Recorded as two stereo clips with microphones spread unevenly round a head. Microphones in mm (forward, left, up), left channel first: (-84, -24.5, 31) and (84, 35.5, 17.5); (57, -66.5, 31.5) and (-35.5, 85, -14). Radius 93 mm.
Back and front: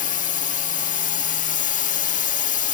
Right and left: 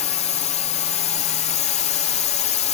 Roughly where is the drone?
Behind right.